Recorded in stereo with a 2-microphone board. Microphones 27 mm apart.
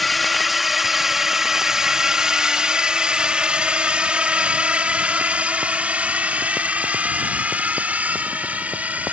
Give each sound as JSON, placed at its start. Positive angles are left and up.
{"t": 0.0, "sound": "a drone", "side_deg": 0}